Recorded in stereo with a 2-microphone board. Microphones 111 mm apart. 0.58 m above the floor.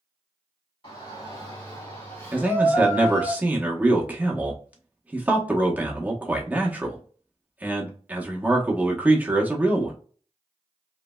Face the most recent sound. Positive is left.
turn(degrees=-15)  # may be behind; listen again after turning